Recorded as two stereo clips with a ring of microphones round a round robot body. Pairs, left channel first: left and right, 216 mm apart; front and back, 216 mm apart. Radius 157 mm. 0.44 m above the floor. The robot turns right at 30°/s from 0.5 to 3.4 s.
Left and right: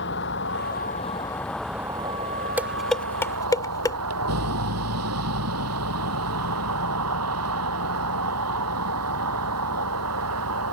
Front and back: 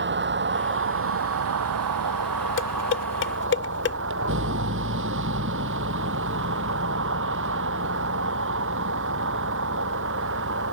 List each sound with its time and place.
0.0 s a vehicle: 145° left; by 10.7 s 125° right
2.6 s dishes clattering: 10° right; by 4.0 s 15° left